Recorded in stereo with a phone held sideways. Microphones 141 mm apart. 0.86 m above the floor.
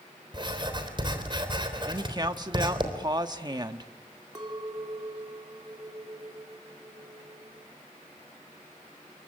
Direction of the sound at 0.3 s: 35° right (ahead or behind).